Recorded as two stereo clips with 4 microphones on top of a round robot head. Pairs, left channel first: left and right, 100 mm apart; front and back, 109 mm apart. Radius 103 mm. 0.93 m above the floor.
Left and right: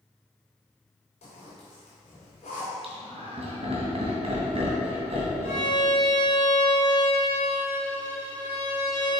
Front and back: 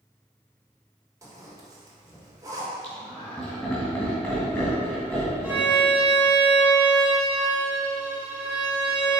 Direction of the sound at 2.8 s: 70° right.